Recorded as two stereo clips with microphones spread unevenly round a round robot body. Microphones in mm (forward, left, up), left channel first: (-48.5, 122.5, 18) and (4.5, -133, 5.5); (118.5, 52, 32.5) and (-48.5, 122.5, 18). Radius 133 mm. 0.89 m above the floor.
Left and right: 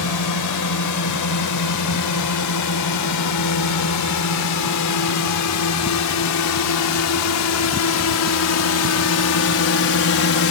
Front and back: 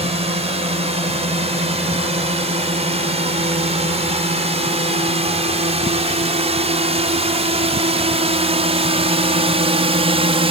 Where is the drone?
105° left; by 10.5 s 115° left.